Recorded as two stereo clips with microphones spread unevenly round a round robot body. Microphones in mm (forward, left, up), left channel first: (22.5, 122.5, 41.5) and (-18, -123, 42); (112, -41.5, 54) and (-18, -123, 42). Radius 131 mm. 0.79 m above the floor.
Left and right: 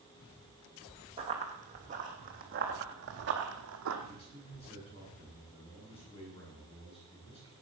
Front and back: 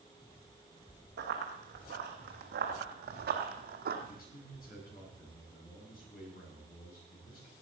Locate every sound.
1.2 s running footsteps: 165° right, 3 m; by 4.0 s 135° right, 2.5 m
4.1 s a man speaking: 15° left, 9 m